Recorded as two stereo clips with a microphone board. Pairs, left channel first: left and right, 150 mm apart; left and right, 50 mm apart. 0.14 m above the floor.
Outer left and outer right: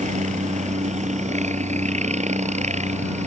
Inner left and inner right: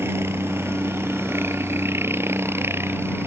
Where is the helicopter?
50° right (ahead or behind).